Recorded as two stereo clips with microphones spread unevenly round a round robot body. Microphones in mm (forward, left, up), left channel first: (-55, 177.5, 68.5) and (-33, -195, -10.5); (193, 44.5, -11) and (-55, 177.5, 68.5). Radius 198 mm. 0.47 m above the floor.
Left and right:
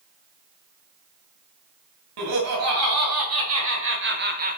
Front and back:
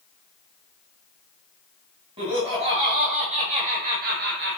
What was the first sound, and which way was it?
Laughter, 125° right.